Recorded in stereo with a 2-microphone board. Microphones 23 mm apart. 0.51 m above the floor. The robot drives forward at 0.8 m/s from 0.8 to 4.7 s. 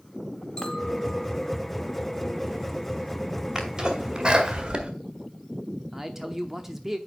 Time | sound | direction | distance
0.6 | a clink | 35° left (ahead or behind) | 1.6 m
3.5 | a sneeze | 30° right (ahead or behind) | 2 m
5.9 | a man speaking | 15° right (ahead or behind) | 0.8 m